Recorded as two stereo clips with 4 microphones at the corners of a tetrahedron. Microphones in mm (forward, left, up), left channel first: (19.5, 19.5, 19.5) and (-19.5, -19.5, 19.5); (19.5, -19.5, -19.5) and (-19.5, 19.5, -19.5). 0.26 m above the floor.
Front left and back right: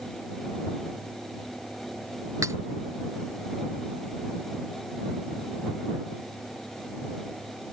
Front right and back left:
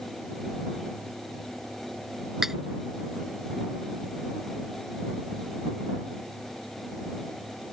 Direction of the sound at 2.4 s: 140° right.